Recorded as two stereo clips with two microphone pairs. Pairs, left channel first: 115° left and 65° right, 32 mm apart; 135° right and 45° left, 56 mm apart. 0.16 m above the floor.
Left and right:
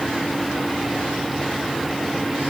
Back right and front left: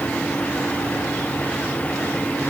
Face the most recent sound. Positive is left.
No sound to turn to.